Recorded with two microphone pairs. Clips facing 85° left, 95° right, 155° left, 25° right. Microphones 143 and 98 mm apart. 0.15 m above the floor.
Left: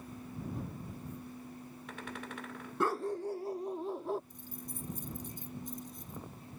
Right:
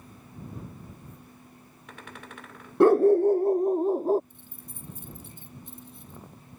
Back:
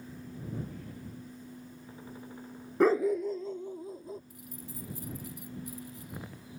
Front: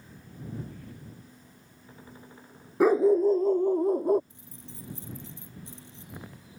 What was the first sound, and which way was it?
A dog barking, 110° right.